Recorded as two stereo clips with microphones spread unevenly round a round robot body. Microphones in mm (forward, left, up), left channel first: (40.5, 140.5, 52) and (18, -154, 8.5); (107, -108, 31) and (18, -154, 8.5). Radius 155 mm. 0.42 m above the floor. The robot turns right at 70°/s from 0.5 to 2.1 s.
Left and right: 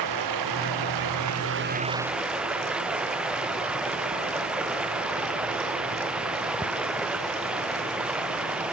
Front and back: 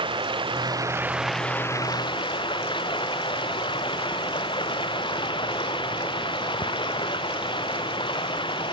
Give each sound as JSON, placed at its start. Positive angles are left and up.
{"t": 0.0, "sound": "running water", "azimuth_deg": -120}